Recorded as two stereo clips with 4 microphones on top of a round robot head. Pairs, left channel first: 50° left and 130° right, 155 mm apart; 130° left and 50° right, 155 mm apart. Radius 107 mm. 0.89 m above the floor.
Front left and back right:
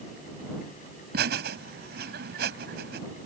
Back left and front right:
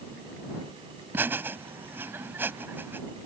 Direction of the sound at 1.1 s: 125° right.